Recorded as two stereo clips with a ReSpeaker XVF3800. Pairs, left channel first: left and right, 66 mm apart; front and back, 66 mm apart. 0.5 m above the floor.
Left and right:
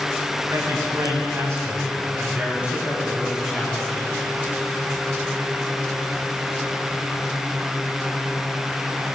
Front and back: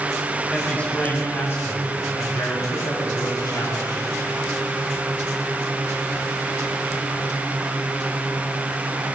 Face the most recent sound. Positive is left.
turn(degrees=0)